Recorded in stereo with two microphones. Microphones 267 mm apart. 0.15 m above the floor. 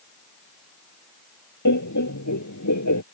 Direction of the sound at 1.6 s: 85° left.